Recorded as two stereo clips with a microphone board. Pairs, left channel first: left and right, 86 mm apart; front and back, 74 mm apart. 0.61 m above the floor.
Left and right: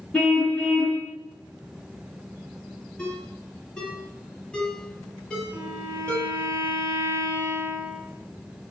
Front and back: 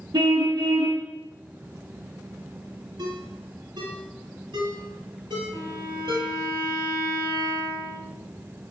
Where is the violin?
150° right, 5.5 m.